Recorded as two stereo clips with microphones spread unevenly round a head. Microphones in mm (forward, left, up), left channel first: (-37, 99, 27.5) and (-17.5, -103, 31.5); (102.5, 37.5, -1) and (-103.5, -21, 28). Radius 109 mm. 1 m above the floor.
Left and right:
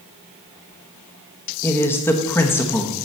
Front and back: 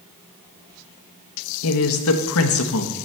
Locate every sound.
1.6 s a woman speaking: 15° left, 1.0 m